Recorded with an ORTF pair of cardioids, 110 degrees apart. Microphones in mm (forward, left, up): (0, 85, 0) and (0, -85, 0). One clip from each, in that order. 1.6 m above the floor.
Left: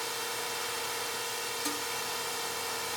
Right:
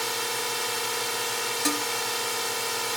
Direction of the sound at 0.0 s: 40° right.